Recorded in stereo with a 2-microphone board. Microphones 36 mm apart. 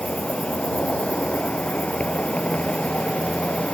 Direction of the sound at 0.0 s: 40° left (ahead or behind).